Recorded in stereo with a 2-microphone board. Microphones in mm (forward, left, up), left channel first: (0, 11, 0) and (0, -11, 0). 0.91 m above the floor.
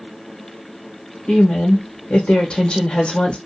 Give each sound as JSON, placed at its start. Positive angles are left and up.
{"t": 1.3, "sound": "a woman speaking", "side_deg": 45, "distance_m": 0.9}